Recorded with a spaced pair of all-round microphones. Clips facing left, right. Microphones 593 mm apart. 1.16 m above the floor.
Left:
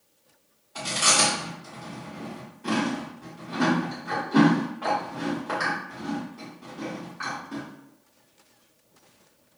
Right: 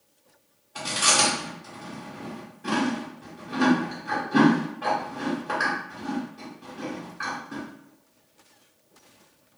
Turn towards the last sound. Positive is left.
turn(degrees=5)  # may be behind; listen again after turning